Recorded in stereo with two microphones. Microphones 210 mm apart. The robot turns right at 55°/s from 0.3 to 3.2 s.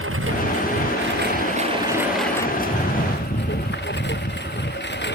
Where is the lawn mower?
105° right; by 5.2 s 55° left.